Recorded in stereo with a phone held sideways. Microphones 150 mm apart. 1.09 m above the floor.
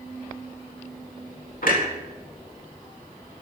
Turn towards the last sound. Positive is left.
turn(degrees=65)  # may be behind; listen again after turning